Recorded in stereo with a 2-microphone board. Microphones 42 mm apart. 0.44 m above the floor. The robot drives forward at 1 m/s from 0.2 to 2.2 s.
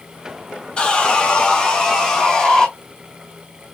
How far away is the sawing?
About 1.1 m.